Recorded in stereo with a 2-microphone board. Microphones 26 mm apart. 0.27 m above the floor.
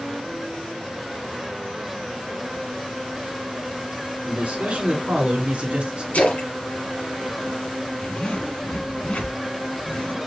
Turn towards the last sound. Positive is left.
turn(degrees=60)  # may be behind; listen again after turning